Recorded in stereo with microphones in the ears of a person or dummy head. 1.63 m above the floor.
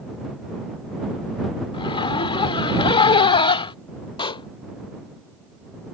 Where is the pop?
35° left (ahead or behind).